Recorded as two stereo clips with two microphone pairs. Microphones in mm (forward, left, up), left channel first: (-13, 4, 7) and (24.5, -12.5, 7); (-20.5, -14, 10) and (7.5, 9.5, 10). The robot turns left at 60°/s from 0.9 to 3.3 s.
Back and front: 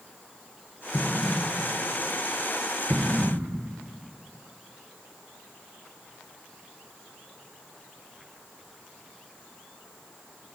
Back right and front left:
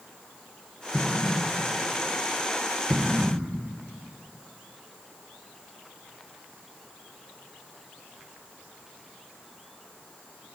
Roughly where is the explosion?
Behind left.